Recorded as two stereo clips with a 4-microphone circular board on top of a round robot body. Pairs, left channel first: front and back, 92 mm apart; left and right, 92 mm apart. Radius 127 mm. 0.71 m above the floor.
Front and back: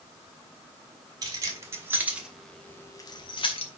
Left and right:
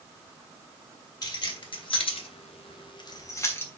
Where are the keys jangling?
130° left, 2.5 m; by 3.8 s 15° left, 1.9 m.